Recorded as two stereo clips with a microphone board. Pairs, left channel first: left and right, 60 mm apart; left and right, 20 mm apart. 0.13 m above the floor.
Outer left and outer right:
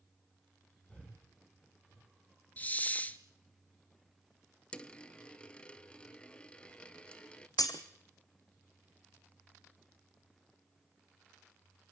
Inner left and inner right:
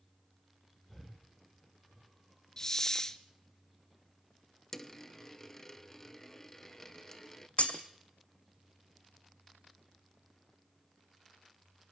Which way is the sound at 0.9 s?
20° left (ahead or behind).